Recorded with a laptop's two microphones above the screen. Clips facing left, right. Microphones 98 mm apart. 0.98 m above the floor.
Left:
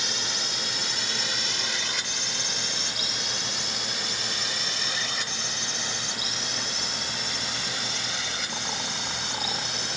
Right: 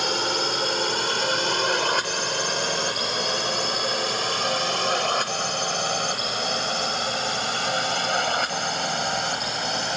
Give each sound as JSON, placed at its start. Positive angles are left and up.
{"t": 0.0, "sound": "a drone", "side_deg": -55}